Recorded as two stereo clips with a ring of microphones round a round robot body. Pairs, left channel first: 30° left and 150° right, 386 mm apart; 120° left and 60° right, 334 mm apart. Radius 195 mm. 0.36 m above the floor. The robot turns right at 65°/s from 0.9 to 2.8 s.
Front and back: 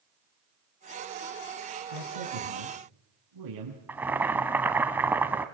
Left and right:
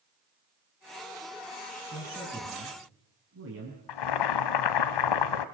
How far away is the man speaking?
About 4 m.